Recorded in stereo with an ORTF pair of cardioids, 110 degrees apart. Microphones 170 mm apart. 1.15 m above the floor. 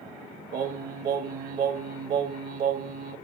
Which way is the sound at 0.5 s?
55° right.